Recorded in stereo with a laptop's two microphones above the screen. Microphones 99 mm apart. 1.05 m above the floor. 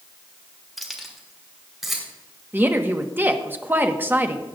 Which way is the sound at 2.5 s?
20° right (ahead or behind).